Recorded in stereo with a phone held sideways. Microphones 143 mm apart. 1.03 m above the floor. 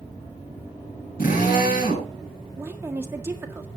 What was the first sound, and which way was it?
A drill, 85° left.